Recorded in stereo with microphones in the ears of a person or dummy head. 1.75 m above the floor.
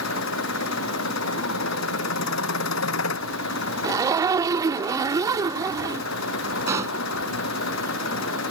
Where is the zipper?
20° right (ahead or behind).